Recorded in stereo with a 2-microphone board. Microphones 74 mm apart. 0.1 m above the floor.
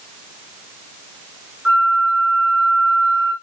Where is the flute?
20° right (ahead or behind), 7.5 m.